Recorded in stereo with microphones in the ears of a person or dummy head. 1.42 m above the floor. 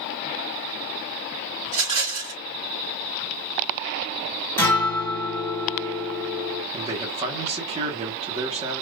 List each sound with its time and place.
1.7 s a rattle: 45° right (ahead or behind), 1.9 m
4.6 s a guitar: 10° left (ahead or behind), 1.6 m
6.7 s a man speaking: 35° right (ahead or behind), 1.1 m